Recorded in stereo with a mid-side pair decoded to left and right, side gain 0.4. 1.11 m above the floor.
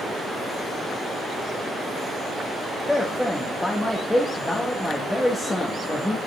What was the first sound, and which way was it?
A man speaking, 15° left.